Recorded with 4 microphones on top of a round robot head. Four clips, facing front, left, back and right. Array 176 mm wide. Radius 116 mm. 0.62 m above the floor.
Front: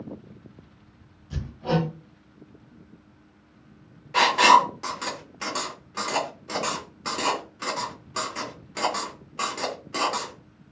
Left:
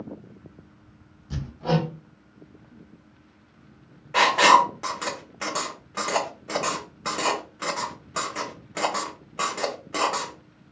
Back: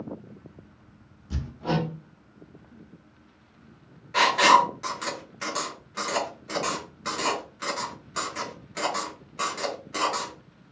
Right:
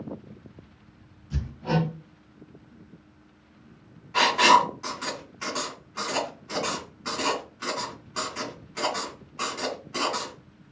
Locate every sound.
1.3 s hammering: 130° left, 1.1 m
4.1 s writing: 70° left, 0.8 m